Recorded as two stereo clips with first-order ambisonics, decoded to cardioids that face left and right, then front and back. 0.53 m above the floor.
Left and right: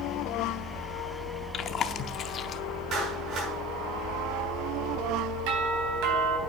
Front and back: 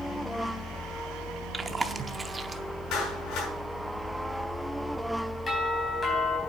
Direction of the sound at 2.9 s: 35° right.